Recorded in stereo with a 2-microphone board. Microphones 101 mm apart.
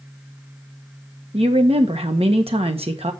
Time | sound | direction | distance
1.3 | a woman speaking | 80° right | 1.4 m